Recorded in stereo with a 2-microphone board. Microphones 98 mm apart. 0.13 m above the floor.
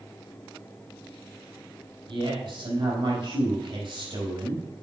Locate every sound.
2.1 s a woman speaking: 60° right (ahead or behind), 5 m